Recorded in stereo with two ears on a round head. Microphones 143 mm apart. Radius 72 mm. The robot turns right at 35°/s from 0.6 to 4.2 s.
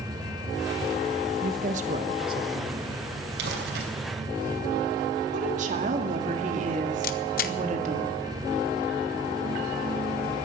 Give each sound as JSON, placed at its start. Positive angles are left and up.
{"t": 1.4, "sound": "a woman speaking", "azimuth_deg": -60, "distance_m": 1.3}
{"t": 3.4, "sound": "crumpling", "side_deg": -80, "distance_m": 3.0}
{"t": 5.3, "sound": "a woman speaking", "side_deg": -50, "distance_m": 2.0}
{"t": 7.0, "sound": "a camera shutter", "side_deg": 60, "distance_m": 0.8}